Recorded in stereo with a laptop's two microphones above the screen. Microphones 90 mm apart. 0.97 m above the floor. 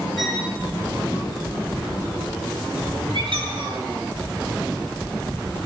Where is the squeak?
65° right (ahead or behind), 8.5 m.